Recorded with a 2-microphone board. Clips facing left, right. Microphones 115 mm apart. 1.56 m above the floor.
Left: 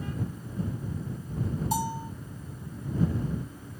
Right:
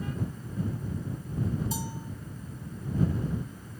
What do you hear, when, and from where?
1.7 s a bell: 75° left (ahead or behind)